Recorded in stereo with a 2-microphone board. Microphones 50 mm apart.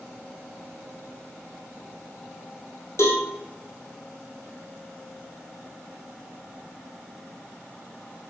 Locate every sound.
3.0 s a cowbell: 70° left (ahead or behind), 1.7 m